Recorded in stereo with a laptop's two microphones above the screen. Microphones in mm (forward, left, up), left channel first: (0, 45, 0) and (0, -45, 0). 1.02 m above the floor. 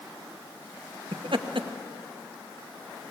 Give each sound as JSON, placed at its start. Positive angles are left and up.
{"t": 1.1, "sound": "laughter", "side_deg": -65, "distance_m": 1.1}